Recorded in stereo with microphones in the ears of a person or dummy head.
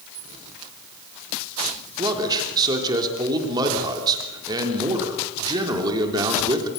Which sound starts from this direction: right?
A man speaking, at 2.0 s.